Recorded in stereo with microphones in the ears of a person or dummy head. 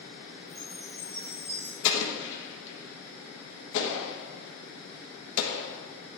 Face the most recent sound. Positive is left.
turn(degrees=65)  # may be behind; listen again after turning